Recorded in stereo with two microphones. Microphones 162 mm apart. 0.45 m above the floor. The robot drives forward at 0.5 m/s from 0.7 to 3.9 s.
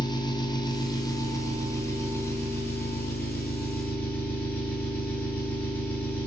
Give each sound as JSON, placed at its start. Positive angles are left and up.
{"t": 0.0, "sound": "an engine running", "side_deg": 25, "distance_m": 1.1}